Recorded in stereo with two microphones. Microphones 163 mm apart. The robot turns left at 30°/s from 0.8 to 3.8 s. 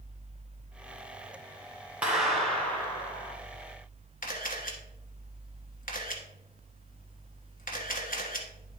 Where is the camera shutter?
60° left (ahead or behind), 1.3 m.